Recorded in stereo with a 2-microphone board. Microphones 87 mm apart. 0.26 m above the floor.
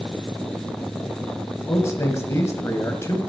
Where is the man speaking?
30° left (ahead or behind), 1.1 m.